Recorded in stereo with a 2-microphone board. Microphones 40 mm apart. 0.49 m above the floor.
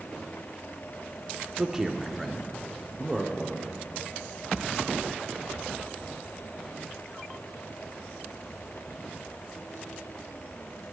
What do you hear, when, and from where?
1.6 s a man speaking: 10° right (ahead or behind), 0.8 m; by 3.7 s 10° left (ahead or behind), 1.2 m